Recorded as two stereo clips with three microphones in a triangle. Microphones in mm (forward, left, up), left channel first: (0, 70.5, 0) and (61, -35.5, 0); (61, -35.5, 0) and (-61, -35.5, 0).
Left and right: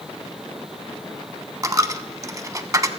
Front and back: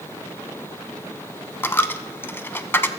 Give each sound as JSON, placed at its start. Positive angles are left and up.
{"t": 1.6, "sound": "a dropped coin", "azimuth_deg": -50, "distance_m": 0.6}